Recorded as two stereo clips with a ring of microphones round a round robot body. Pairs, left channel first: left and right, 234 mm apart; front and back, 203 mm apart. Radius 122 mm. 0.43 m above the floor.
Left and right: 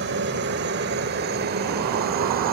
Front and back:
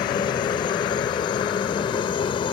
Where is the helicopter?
65° right; by 2.5 s 60° right.